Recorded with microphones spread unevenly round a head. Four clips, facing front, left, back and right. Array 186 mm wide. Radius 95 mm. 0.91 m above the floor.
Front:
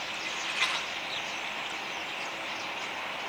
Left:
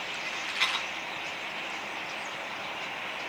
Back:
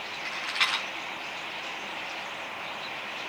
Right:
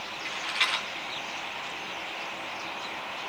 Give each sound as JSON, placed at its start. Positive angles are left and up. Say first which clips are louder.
{"t": 0.2, "sound": "a rattle", "louder": "right 3 dB, back 3 dB", "azimuth_deg": -165, "distance_m": 6.0}